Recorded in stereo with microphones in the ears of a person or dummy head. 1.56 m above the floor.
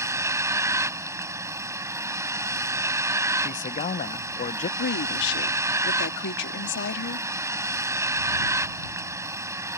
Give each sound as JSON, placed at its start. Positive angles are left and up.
{"t": 0.0, "sound": "a vehicle", "side_deg": -10}
{"t": 3.4, "sound": "a man speaking", "side_deg": 40}
{"t": 4.8, "sound": "a woman speaking", "side_deg": 65}